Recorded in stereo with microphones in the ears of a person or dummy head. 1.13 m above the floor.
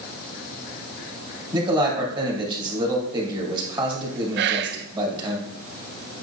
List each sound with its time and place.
1.5 s a man speaking: 20° right (ahead or behind), 2 m
4.4 s whispering: 60° right (ahead or behind), 0.5 m